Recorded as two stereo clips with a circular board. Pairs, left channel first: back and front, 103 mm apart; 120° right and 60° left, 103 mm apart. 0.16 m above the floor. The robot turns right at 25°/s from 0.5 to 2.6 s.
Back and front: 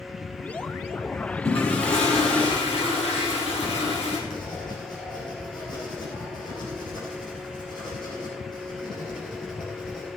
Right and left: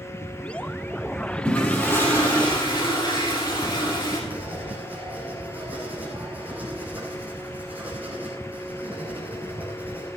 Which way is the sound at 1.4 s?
160° left.